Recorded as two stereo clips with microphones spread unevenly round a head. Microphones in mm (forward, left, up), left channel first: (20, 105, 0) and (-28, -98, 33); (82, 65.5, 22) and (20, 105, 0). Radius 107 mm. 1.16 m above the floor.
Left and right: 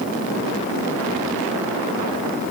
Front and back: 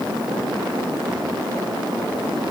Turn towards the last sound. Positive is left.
No sound to turn to.